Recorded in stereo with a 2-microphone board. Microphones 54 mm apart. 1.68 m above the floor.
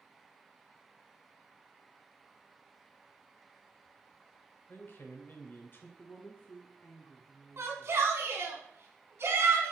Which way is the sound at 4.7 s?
40° left (ahead or behind).